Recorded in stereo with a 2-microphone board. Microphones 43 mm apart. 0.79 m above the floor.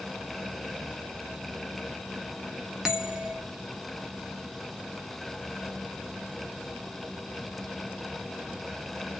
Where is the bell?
15° right (ahead or behind), 0.7 m.